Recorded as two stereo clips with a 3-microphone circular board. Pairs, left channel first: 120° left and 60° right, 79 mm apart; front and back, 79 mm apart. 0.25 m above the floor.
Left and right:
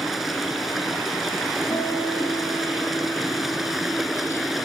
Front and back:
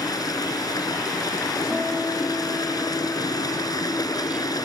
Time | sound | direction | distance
0.0 | running water | 30° left | 2.5 m
1.7 | a guitar | 95° left | 6.5 m